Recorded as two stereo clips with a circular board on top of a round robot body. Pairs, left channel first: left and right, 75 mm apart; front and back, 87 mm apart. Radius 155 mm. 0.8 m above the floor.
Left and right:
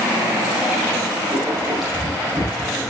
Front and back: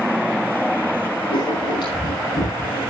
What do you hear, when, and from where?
1.3 s writing: 5° right, 9 m